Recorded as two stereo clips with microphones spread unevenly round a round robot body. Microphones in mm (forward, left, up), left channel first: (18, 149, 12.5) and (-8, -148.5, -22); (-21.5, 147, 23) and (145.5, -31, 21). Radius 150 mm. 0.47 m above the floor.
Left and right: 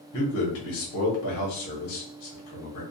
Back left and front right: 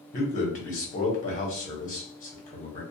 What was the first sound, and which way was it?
A man speaking, 95° left.